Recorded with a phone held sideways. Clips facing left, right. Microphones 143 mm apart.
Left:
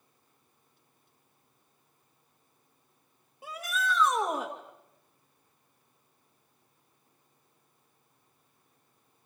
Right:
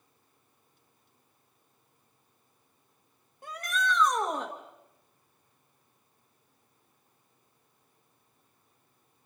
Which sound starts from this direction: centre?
A shout, at 3.4 s.